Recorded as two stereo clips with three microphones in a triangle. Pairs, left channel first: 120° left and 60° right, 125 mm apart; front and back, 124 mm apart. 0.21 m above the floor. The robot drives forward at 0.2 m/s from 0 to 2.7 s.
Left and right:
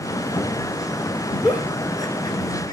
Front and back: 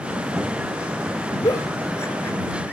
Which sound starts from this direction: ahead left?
A giggle, at 1.4 s.